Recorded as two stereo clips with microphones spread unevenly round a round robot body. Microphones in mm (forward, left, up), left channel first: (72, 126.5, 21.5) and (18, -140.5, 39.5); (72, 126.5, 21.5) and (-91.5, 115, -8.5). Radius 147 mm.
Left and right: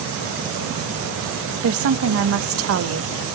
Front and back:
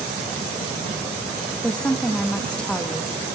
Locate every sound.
1.6 s a woman speaking: 90° right, 0.9 m